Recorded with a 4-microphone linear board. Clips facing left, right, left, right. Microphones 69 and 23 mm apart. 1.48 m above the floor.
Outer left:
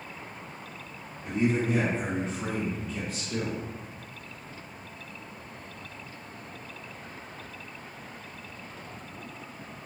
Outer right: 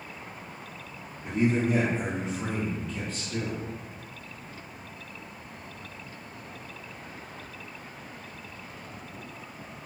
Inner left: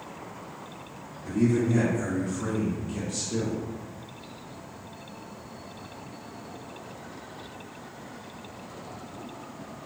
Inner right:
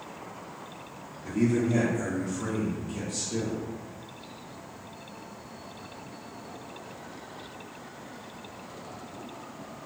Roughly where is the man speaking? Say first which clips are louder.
Outer right 1 dB, inner left 1 dB; right.